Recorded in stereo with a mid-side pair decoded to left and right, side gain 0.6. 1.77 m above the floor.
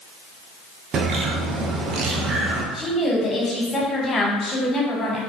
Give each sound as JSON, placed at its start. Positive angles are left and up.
{"t": 0.9, "sound": "a bird", "azimuth_deg": -50, "distance_m": 0.6}
{"t": 2.7, "sound": "a woman speaking", "azimuth_deg": 30, "distance_m": 1.4}